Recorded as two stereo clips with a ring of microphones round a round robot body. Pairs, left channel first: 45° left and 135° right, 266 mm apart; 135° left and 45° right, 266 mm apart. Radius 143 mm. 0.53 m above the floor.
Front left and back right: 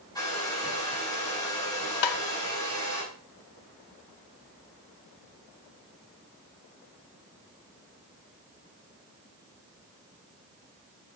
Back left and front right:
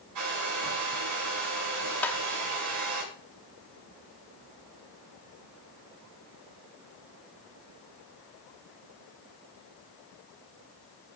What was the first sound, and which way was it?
A hair dryer, 30° right.